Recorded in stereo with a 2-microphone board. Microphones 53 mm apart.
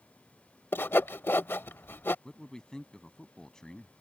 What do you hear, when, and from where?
0.7 s sawing: 45° left (ahead or behind)
2.2 s a man speaking: 10° left (ahead or behind)